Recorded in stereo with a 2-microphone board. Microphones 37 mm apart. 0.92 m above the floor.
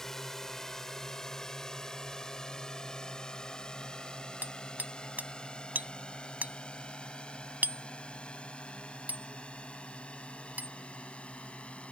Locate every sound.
0.0 s a drone: 10° left (ahead or behind); by 11.9 s 35° left (ahead or behind)
4.4 s hammering: 50° right (ahead or behind)